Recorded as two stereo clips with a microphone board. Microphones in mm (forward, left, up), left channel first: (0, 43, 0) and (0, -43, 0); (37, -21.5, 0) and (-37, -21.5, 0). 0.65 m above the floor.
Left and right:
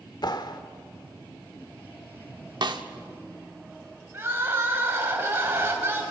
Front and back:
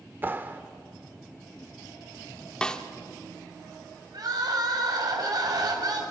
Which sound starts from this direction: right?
A snare drum, at 2.6 s.